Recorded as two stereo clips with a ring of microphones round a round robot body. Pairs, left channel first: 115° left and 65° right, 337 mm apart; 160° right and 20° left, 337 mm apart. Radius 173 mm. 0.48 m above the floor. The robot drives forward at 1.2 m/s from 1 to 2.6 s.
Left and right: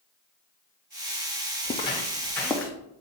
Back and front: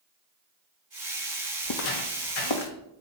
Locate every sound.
1.6 s footsteps: straight behind, 0.7 m; by 2.7 s 160° right, 1.3 m